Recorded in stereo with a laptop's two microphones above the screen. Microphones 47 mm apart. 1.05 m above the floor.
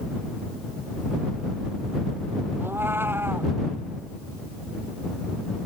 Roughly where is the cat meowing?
Right.